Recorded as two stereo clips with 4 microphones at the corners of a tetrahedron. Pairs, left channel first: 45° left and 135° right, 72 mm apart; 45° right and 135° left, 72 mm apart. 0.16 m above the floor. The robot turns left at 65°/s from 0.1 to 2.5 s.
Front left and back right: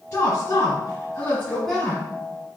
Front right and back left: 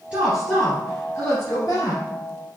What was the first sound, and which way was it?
A woman speaking, 70° left.